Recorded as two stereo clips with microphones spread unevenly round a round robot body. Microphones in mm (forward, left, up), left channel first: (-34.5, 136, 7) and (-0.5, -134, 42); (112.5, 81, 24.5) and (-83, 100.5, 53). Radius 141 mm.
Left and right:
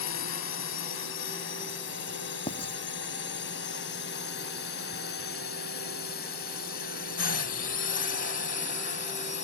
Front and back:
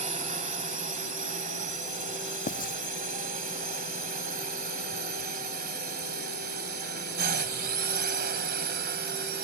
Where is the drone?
125° left; by 9.4 s 150° left.